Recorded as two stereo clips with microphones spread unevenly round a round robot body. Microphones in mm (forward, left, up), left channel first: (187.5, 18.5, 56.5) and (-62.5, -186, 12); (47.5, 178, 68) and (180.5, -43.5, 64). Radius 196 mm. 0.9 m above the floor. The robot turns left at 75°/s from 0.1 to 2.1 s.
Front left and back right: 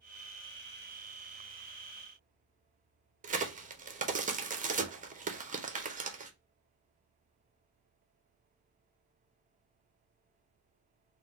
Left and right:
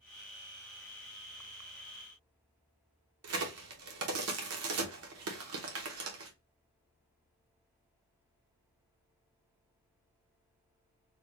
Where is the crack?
80° right, 0.9 m.